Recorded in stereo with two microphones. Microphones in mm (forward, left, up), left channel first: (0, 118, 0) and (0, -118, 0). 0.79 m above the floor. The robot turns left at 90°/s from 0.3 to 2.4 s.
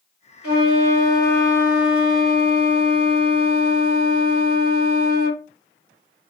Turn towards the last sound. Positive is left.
turn(degrees=-85)